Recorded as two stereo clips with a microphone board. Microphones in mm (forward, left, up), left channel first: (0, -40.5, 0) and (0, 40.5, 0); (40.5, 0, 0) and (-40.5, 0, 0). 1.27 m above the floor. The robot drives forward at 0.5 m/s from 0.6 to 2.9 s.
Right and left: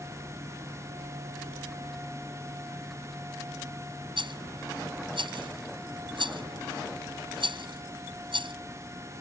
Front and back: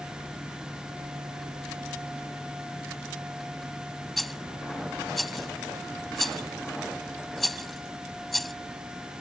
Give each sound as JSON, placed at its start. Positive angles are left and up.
{"t": 4.2, "sound": "a rattle", "azimuth_deg": 90}